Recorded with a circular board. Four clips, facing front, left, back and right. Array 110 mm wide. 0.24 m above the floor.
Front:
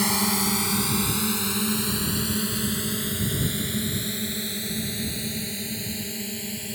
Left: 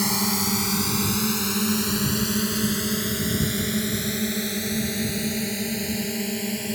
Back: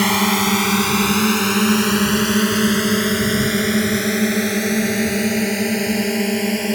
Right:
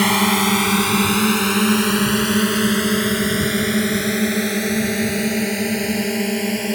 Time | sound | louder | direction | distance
0.0 | a drone | right 9 dB, back 8 dB | 130° right | ?